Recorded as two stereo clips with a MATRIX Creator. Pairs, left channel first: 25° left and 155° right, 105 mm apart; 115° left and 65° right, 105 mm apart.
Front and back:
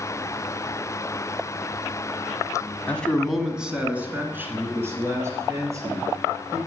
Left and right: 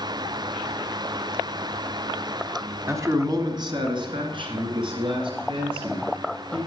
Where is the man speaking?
40° right, 1.1 m; by 6.6 s 100° right, 4 m.